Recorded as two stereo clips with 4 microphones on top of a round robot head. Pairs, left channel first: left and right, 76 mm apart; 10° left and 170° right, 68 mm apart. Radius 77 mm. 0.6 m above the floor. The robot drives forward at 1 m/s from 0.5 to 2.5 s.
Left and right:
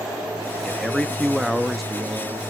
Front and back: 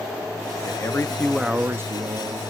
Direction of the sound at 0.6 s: Straight ahead.